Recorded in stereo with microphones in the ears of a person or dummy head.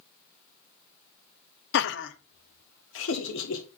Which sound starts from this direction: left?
Laughter, at 1.7 s.